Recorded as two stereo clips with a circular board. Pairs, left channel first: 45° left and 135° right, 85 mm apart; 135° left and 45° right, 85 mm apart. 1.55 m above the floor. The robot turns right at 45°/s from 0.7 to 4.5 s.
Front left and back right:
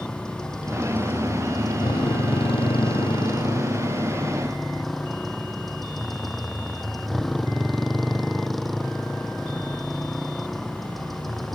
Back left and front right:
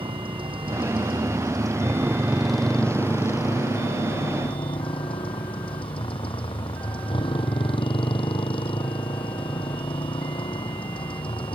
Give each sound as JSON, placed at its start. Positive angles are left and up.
{"t": 0.0, "sound": "a motorcycle", "azimuth_deg": -40}